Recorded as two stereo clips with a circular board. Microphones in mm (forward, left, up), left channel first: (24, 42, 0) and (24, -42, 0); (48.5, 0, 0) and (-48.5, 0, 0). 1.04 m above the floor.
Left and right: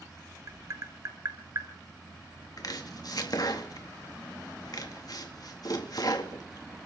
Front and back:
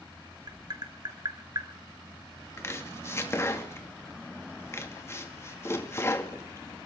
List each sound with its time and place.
0.5 s tapping: 135° right, 1.8 m
2.6 s chopping: 60° left, 2 m